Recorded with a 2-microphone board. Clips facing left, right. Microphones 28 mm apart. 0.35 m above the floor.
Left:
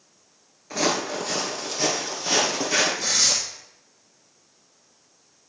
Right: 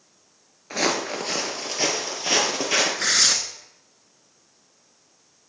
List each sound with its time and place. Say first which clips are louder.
0.7 s footsteps: even; 25° right (ahead or behind), 2 m; by 2.9 s 35° right (ahead or behind), 4.5 m
3.0 s tearing paper: right 2 dB; 75° right (ahead or behind), 1.1 m